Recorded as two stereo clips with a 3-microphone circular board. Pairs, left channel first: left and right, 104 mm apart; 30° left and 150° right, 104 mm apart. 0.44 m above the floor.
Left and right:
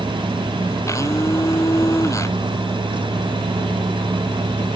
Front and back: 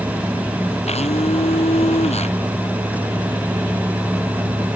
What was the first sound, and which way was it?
A blender, 30° left.